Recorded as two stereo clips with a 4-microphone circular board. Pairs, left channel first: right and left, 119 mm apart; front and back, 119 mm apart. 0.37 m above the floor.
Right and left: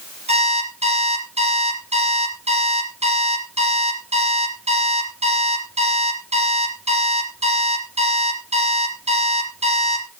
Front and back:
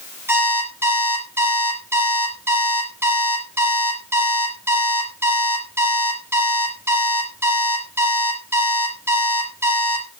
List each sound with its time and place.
0.3 s an alarm clock: 110° left, 5.5 m